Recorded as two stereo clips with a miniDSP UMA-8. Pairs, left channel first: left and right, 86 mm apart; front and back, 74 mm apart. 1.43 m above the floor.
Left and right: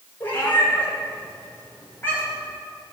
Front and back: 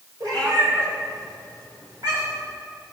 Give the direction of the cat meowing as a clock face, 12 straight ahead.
7 o'clock.